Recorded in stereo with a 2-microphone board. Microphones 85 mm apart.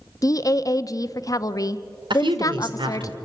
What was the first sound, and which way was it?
A woman speaking, 45° left (ahead or behind).